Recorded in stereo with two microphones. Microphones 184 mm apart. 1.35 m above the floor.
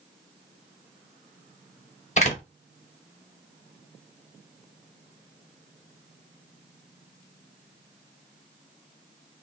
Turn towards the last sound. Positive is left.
turn(degrees=40)  # may be behind; listen again after turning